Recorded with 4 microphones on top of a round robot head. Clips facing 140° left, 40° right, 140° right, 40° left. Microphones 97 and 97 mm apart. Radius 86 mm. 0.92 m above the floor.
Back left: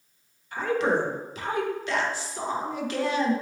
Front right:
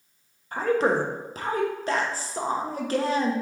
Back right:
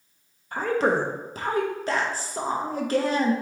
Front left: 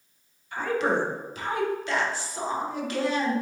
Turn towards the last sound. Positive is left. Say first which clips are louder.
# front right 2 dB, back right 3 dB
turn(degrees=-90)